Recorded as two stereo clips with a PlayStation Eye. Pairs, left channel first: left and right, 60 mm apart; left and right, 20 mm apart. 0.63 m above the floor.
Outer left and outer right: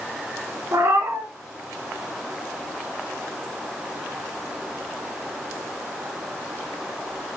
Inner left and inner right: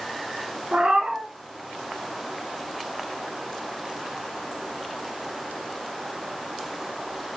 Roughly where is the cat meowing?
Right.